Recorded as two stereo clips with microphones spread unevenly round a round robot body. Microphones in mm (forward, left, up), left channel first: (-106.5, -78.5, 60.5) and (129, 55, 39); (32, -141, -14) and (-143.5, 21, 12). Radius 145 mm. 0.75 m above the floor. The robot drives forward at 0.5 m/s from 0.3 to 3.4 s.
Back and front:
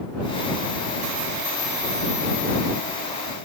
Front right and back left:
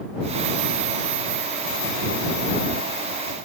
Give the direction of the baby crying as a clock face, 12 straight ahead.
I don't hear a baby crying.